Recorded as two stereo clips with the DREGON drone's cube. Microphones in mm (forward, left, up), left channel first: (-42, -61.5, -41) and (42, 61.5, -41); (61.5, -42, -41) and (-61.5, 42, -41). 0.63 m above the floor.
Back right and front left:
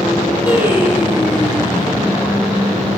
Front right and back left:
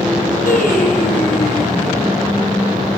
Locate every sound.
0.5 s singing: 25° right, 8.5 m